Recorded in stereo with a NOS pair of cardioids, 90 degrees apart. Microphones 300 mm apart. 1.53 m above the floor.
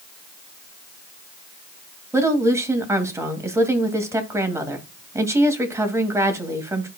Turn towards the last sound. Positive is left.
turn(degrees=-10)